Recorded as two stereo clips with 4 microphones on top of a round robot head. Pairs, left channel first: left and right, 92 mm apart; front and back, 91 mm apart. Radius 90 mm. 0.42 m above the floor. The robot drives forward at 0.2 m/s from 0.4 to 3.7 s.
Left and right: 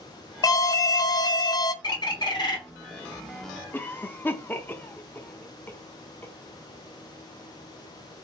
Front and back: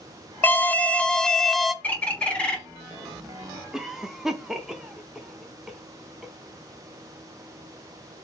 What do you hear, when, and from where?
0.4 s an alarm: 60° left, 0.7 m; by 1.7 s 90° left, 0.7 m
1.8 s a bird: 70° left, 1.5 m; by 2.6 s 75° left, 1.5 m
3.7 s a cough: 105° left, 0.8 m